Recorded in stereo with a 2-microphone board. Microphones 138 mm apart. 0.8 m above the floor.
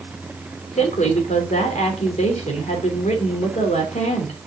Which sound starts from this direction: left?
A woman speaking, at 0.8 s.